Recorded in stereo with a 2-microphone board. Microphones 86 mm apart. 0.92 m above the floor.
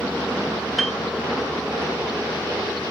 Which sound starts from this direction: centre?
A piano, at 0.8 s.